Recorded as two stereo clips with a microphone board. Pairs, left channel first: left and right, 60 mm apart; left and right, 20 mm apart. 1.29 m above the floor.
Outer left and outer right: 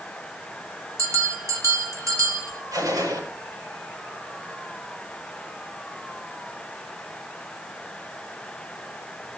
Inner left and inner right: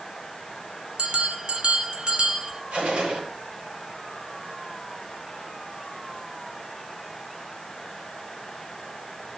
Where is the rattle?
I don't hear a rattle.